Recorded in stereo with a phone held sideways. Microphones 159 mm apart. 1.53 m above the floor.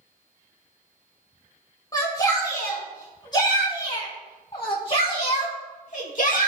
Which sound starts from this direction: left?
A shout, at 1.9 s.